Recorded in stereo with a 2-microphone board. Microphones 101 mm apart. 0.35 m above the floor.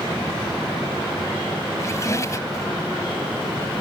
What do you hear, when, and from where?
1.8 s a squeak: 30° left (ahead or behind), 1.4 m